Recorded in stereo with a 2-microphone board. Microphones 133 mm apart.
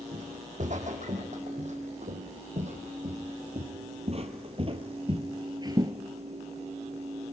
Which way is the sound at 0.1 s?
70° right (ahead or behind).